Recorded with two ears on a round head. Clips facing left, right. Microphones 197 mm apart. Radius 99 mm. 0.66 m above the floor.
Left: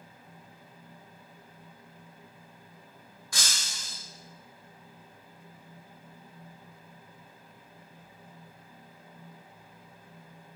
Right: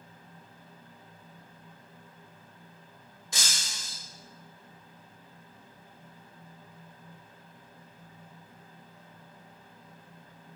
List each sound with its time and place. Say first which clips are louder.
3.3 s breaking glass: even; 20° right (ahead or behind), 1.0 m